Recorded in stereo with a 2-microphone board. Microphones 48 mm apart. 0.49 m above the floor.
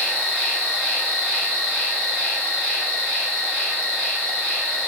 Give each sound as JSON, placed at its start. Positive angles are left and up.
{"t": 0.0, "sound": "an insect", "side_deg": 35, "distance_m": 1.9}